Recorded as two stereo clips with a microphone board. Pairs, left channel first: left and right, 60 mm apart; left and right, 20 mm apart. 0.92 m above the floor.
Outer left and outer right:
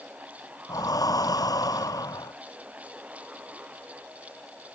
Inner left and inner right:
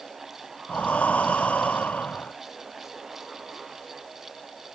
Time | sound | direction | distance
0.7 | breathing | 85° left | ?